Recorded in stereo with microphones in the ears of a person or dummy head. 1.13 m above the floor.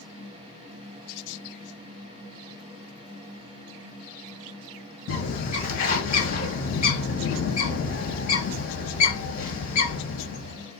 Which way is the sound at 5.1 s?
50° left (ahead or behind).